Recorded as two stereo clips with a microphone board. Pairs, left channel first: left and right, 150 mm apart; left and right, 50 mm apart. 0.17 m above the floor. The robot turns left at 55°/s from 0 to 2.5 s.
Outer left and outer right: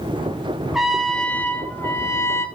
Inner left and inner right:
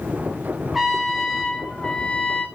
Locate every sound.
0.7 s a trumpet: 5° right (ahead or behind), 1.1 m; by 2.5 s 20° left (ahead or behind), 1.1 m